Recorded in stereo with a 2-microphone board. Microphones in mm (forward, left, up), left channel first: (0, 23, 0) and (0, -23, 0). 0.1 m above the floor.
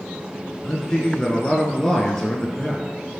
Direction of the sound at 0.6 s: 15° left (ahead or behind).